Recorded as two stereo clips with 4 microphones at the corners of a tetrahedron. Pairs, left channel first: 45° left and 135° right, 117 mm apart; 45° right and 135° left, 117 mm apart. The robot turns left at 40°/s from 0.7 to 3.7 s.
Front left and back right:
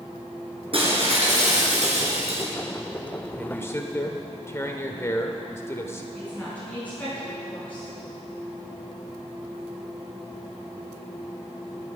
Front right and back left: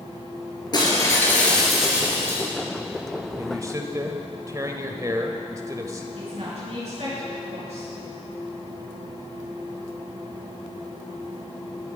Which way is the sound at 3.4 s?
110° left.